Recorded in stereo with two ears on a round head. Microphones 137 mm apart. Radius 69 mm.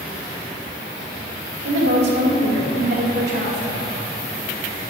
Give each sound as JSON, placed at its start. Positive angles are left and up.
{"t": 1.6, "sound": "a woman speaking", "side_deg": -80, "distance_m": 2.5}